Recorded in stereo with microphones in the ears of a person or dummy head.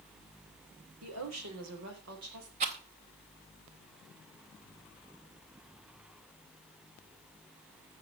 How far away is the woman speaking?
About 3.5 m.